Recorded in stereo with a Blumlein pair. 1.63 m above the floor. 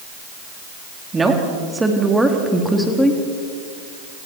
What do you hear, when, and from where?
1.1 s a woman speaking: 15° right, 3.5 m; by 3.2 s 5° left, 3.5 m